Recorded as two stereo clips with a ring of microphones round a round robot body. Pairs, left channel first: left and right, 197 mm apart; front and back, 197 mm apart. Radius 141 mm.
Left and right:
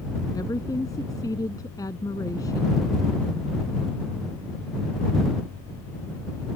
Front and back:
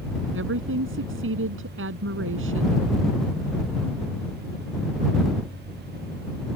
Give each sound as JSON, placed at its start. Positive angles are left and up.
{"t": 0.3, "sound": "a woman speaking", "azimuth_deg": 170}